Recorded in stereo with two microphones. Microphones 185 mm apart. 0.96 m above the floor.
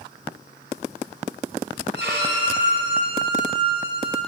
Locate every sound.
1.9 s a violin: 80° right, 2.5 m